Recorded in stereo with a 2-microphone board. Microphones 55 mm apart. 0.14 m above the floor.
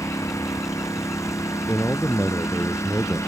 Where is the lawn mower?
70° left (ahead or behind); by 3.3 s 65° left (ahead or behind).